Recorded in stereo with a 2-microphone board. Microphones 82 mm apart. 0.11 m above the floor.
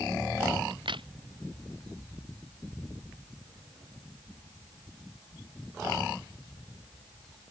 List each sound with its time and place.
0.7 s a crack: 80° right